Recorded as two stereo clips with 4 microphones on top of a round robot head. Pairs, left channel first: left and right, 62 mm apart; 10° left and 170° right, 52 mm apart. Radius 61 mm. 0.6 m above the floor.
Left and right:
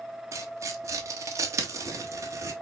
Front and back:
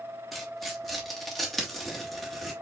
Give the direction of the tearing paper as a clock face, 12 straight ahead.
3 o'clock.